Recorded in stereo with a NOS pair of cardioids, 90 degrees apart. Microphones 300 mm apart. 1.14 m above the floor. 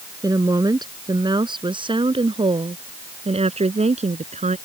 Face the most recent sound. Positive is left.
turn(degrees=-25)